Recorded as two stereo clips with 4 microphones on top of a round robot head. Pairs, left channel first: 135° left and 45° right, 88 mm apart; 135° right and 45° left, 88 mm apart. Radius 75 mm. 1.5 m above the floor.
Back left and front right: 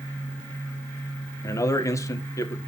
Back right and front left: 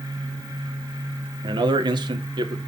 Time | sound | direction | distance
1.4 | a man speaking | 80° left | 1.9 m